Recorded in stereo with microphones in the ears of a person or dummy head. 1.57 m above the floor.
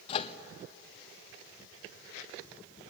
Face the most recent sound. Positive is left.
turn(degrees=35)  # may be behind; listen again after turning